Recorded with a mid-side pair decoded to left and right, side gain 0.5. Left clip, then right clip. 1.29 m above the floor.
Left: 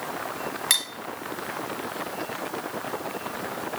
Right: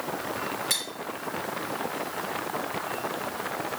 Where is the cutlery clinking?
60° left, 1.5 m.